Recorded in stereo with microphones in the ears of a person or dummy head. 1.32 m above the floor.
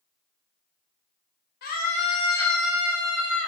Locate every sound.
1.6 s a scream: 50° left (ahead or behind), 0.8 m; by 3.5 s 40° right (ahead or behind), 0.8 m